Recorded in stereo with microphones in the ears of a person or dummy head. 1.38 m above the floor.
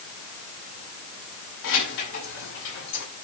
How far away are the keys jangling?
About 8 m.